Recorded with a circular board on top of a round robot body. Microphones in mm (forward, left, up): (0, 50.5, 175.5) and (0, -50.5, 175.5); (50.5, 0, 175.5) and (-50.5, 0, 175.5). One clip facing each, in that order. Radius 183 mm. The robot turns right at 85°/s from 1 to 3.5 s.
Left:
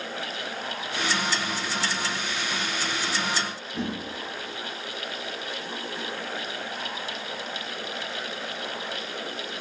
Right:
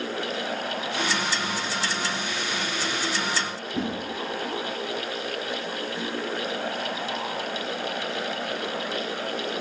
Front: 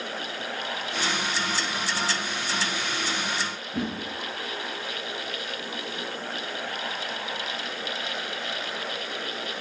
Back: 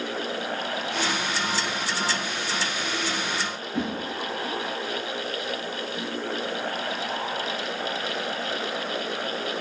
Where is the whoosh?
50° right, 1.5 m.